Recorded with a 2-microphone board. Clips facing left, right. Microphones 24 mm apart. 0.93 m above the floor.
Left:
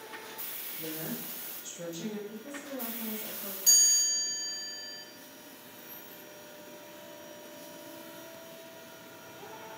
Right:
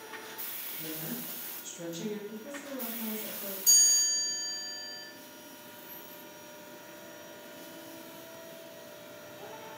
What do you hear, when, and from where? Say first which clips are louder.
0.8 s a woman speaking: left 2 dB; 55° left (ahead or behind), 1.4 m; by 2.2 s 20° right (ahead or behind), 1.2 m
2.3 s a woman speaking: even; 40° right (ahead or behind), 1.2 m
3.7 s a chime: even; 40° left (ahead or behind), 1.4 m